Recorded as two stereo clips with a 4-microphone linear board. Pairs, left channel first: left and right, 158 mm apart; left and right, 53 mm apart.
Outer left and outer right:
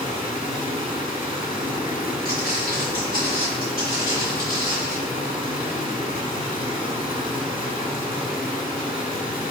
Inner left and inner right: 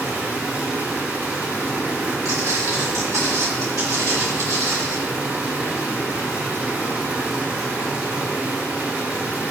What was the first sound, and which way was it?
Running water, 35° right (ahead or behind).